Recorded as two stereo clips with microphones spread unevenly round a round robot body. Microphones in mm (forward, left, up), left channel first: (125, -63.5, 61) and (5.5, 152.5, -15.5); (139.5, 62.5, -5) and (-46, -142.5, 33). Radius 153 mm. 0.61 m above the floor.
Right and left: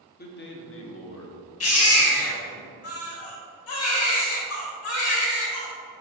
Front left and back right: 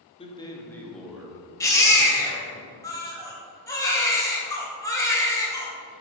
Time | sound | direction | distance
0.2 | a man speaking | 5° right | 1.4 m
1.6 | a baby crying | 30° right | 2 m